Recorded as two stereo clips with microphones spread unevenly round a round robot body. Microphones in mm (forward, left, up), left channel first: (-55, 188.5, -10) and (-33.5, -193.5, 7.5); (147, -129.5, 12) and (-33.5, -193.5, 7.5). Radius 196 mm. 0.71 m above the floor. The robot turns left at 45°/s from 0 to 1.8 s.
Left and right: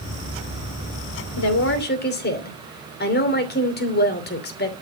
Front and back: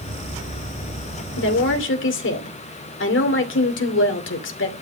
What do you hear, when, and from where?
1.4 s a woman speaking: 50° left, 2.5 m; by 4.7 s 30° left, 2.5 m